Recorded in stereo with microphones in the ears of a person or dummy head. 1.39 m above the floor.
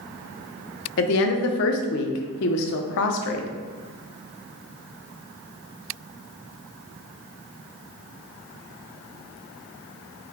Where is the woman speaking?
60° left (ahead or behind), 0.8 m.